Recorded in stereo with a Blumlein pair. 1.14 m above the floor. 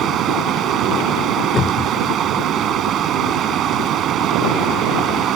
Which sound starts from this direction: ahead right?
Running water, at 0.0 s.